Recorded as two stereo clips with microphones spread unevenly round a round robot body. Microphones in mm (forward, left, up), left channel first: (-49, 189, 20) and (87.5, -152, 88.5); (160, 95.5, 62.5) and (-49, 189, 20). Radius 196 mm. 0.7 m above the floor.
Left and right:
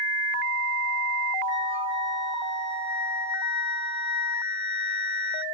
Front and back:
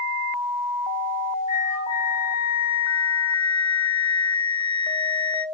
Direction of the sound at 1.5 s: 160° left.